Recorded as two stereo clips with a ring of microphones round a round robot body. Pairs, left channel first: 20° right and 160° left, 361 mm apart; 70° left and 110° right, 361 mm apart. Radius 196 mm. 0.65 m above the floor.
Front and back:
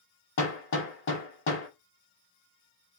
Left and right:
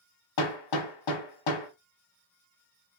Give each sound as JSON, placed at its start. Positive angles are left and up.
{"t": 0.4, "sound": "hammering", "azimuth_deg": 35, "distance_m": 1.3}